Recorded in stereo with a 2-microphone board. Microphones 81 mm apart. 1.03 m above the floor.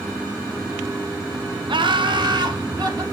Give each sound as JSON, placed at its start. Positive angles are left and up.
{"t": 1.7, "sound": "laughter", "side_deg": -75, "distance_m": 1.1}